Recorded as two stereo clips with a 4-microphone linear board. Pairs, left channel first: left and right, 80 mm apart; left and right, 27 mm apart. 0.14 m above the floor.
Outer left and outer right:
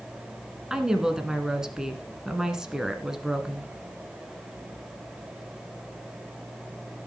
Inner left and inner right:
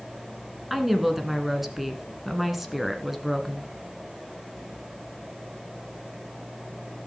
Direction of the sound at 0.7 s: 5° right (ahead or behind).